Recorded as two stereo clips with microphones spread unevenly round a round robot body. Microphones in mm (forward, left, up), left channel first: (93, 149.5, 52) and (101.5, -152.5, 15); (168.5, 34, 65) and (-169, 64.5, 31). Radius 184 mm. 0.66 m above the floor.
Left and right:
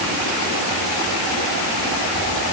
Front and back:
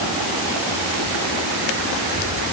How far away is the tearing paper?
No tearing paper in this recording.